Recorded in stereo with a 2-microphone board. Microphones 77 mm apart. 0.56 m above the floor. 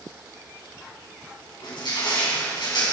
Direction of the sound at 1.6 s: 75° left (ahead or behind).